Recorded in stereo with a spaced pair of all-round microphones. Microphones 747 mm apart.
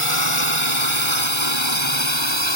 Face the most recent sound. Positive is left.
turn(degrees=35)  # may be behind; listen again after turning